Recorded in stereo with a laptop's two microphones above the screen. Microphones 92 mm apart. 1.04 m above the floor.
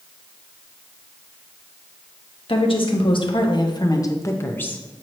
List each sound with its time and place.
2.5 s a woman speaking: 70° left (ahead or behind), 1.2 m; by 4.8 s 15° left (ahead or behind), 1.1 m